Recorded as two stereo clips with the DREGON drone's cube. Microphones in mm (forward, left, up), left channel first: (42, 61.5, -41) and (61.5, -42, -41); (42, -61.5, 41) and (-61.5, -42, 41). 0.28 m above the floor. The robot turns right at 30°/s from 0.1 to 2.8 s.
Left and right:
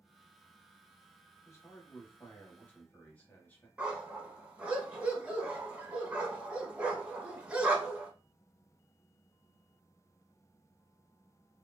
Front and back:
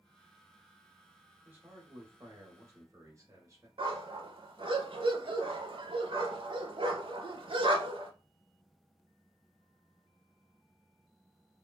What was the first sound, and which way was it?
A man speaking, 115° left.